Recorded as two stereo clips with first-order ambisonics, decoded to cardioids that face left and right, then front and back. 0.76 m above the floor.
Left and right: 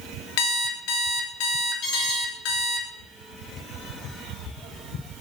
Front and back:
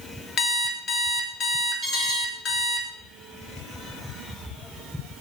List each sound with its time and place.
0.4 s an alarm clock: 65° left, 0.6 m
1.8 s an alarm: 115° left, 2.5 m